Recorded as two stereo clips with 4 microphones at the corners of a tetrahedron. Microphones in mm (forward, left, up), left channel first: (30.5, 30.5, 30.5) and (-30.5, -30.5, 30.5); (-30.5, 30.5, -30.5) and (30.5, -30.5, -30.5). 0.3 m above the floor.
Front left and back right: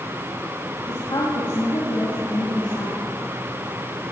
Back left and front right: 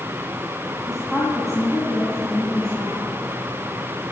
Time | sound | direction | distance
0.9 | a woman speaking | 40° left | 2 m